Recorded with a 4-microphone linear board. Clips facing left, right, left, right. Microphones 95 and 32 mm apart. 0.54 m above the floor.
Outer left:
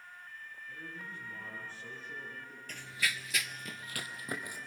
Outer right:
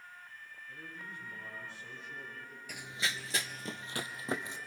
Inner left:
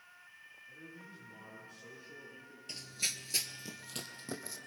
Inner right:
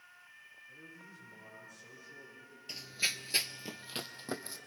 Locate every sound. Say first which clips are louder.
0.7 s a man speaking: outer left 1 dB, inner left 2 dB; 30° left (ahead or behind), 9 m; by 2.6 s 50° left (ahead or behind), 7.5 m
2.7 s running footsteps: outer left 1 dB, inner right 4 dB; 10° right (ahead or behind), 0.7 m; by 4.6 s 25° right (ahead or behind), 1.7 m